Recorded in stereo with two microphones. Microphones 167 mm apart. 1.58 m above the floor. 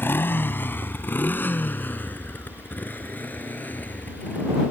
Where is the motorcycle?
15° left (ahead or behind); by 4.7 s 10° left (ahead or behind).